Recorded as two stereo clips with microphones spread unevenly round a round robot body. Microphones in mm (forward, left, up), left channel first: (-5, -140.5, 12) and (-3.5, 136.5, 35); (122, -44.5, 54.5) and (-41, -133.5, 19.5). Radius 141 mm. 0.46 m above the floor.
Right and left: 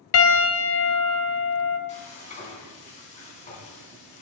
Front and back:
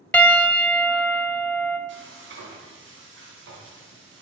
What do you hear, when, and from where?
0.1 s a piano: 55° right, 1.1 m
1.9 s frying: 155° right, 3 m